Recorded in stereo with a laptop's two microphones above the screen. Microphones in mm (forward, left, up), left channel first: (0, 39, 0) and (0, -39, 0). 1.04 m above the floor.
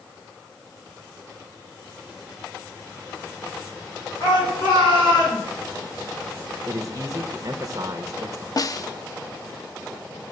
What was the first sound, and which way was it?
A shout, 65° left (ahead or behind).